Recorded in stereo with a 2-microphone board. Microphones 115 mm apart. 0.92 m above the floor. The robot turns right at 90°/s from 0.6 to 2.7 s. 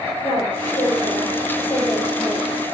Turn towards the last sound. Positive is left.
turn(degrees=-140)